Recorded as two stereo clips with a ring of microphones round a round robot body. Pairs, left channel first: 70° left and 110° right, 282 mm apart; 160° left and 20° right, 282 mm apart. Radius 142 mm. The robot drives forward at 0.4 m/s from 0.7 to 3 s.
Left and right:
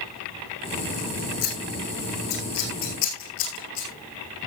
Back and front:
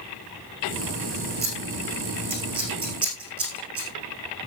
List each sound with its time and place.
1.4 s scissors: 45° left, 7 m; by 3.9 s 50° left, 6.5 m